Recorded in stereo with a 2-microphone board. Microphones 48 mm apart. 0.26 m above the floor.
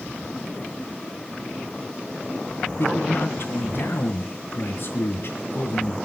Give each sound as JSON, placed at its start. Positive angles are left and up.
{"t": 2.8, "sound": "a man speaking", "side_deg": 50, "distance_m": 3.0}